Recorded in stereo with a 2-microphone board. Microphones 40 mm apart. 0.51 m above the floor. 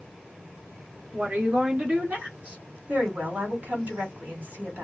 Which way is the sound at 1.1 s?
45° right (ahead or behind).